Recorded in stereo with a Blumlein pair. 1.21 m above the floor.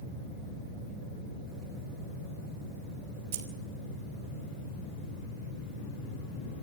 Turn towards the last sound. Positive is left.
turn(degrees=-50)